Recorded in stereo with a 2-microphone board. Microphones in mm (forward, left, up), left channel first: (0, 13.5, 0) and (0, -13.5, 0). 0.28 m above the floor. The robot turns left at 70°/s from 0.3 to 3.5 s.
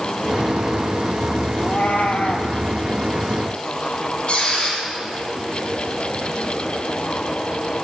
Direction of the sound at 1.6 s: 135° left.